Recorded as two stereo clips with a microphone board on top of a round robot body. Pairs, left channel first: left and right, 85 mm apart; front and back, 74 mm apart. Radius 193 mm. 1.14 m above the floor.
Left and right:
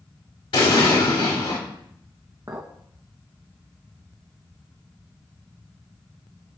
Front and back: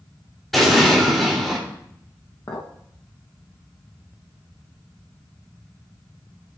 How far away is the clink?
About 0.6 m.